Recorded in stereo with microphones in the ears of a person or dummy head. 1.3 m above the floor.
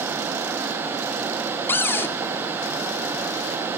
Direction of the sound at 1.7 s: 10° left (ahead or behind).